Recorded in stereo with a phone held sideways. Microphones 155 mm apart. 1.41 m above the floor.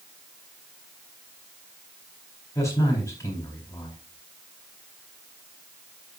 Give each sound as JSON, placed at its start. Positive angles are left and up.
{"t": 2.5, "sound": "a man speaking", "side_deg": 20, "distance_m": 4.0}